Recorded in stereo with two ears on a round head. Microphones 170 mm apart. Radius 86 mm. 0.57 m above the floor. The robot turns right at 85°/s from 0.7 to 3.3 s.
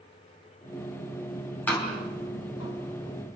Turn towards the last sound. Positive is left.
turn(degrees=30)  # may be behind; listen again after turning